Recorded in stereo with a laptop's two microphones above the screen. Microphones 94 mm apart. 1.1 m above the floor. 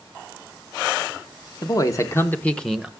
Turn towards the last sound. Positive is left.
turn(degrees=-5)  # may be behind; listen again after turning